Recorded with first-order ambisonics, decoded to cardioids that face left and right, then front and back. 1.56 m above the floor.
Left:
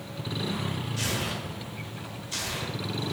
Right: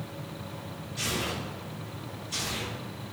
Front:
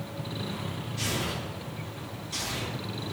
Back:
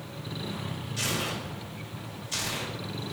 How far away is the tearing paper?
About 1.1 m.